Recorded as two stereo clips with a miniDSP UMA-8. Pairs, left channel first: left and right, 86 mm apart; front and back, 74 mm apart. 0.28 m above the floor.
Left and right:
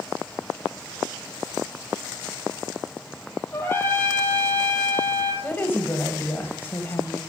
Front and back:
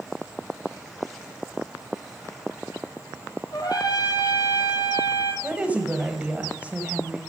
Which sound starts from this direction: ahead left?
A trumpet, at 3.5 s.